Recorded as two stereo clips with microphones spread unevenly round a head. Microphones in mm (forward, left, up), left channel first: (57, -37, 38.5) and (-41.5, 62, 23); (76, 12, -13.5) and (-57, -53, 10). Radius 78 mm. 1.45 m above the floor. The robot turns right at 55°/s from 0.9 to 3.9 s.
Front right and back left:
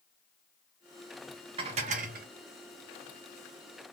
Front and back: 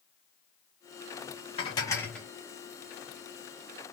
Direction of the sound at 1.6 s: 85° left.